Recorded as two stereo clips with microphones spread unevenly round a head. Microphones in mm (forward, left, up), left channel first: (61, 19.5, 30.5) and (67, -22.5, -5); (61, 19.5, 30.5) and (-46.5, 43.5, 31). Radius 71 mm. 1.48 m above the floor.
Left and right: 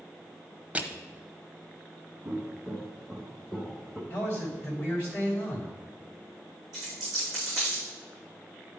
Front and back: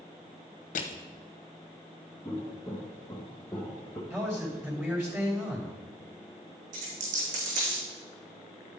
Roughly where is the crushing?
Ahead.